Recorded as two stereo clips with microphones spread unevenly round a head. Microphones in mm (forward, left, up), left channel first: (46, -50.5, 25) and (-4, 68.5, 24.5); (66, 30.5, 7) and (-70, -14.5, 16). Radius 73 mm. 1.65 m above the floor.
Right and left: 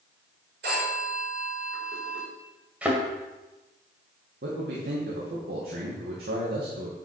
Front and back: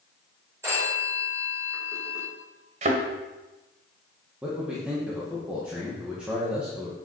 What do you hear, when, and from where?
0.6 s a phone ringing: 125° left, 5.5 m
2.8 s a thud: 170° right, 1.9 m
4.4 s a man speaking: 115° left, 2 m